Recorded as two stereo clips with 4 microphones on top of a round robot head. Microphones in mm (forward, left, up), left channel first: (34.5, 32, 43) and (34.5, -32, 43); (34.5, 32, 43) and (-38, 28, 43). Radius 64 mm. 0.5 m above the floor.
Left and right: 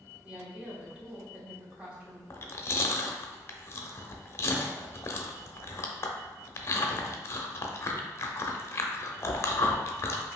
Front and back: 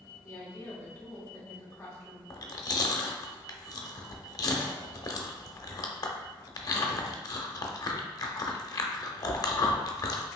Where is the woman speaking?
30° right, 1.7 m.